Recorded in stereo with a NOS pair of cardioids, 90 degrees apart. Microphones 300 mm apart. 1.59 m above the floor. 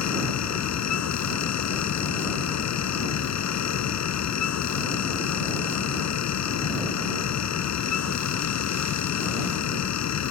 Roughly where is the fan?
Ahead left.